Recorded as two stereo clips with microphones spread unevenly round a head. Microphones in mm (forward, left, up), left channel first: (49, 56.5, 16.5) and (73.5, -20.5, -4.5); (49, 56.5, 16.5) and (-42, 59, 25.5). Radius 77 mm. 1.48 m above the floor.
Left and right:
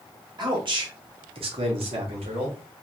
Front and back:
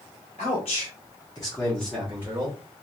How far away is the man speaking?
About 1.4 m.